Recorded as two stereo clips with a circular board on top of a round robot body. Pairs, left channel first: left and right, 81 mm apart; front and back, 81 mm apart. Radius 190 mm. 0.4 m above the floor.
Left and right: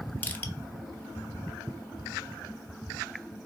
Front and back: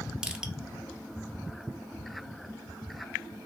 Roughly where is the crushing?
Behind left.